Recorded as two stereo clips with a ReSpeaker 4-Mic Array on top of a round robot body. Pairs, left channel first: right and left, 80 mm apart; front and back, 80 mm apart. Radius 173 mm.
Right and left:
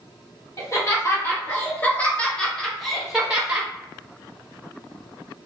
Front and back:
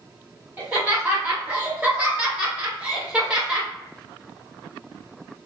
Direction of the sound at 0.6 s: 115° right.